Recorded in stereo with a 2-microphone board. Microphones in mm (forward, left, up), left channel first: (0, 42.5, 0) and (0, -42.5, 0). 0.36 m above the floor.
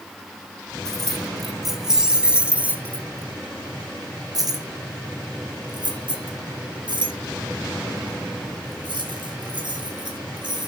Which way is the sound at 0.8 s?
5° left (ahead or behind).